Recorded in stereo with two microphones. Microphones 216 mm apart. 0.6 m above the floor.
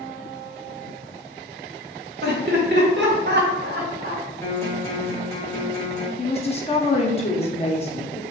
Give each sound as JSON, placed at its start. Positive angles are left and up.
{"t": 2.2, "sound": "laughter", "side_deg": -50, "distance_m": 1.2}
{"t": 4.4, "sound": "a guitar", "side_deg": 10, "distance_m": 1.4}
{"t": 6.2, "sound": "a woman speaking", "side_deg": 30, "distance_m": 0.6}